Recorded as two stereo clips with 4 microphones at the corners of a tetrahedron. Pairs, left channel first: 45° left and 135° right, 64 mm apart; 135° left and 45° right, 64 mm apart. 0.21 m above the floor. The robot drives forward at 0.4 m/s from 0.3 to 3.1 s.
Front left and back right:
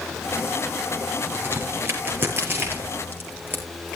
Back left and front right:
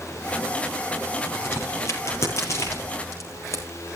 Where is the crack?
170° left, 5 m; by 3.6 s 175° left, 5.5 m.